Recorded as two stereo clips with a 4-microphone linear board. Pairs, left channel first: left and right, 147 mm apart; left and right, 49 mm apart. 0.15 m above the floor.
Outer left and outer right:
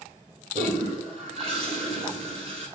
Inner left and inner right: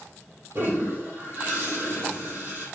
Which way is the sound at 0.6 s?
45° right (ahead or behind).